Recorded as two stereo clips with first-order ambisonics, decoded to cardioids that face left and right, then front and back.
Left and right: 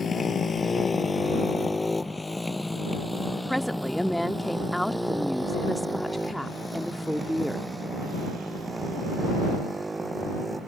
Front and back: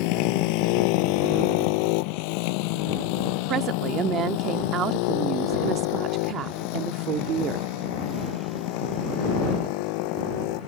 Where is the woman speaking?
Straight behind.